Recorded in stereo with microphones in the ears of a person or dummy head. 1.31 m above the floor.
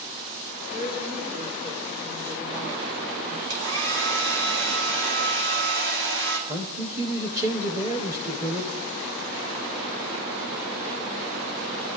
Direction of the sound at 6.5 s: 15° right (ahead or behind).